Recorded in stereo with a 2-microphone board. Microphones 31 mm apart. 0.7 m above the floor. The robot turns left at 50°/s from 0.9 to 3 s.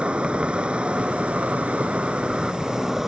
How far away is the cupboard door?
No cupboard door in this recording.